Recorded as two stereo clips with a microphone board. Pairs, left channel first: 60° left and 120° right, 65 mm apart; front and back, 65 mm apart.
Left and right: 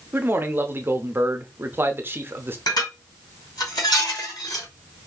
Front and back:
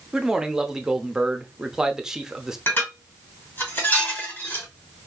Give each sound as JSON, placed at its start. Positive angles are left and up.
{"t": 0.1, "sound": "a man speaking", "azimuth_deg": -105, "distance_m": 0.7}
{"t": 2.7, "sound": "dishes clattering", "azimuth_deg": 60, "distance_m": 2.5}